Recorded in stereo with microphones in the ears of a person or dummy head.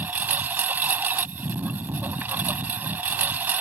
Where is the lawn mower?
5° right (ahead or behind).